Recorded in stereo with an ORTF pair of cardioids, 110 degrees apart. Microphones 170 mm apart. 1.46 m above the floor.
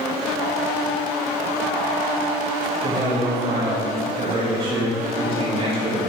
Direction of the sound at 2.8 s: 35° right.